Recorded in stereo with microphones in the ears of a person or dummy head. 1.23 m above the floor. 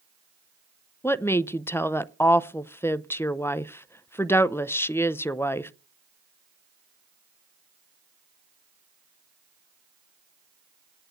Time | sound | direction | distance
1.0 | a woman speaking | 10° left (ahead or behind) | 0.5 m